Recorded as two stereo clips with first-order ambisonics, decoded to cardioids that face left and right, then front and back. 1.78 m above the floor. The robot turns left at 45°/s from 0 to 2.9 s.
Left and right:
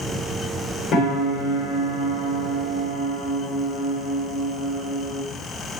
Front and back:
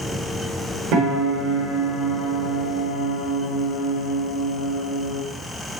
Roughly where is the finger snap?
No finger snap in this recording.